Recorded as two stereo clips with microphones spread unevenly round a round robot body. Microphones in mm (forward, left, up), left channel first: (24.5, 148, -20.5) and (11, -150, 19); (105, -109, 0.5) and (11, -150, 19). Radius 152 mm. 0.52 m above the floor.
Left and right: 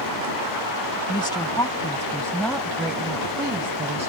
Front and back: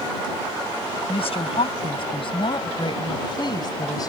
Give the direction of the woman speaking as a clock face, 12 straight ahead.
12 o'clock.